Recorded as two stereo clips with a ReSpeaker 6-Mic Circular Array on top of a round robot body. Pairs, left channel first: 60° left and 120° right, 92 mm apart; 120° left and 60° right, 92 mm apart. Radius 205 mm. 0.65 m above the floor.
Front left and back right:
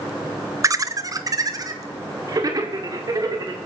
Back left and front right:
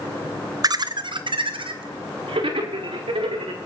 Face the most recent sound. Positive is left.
turn(degrees=-70)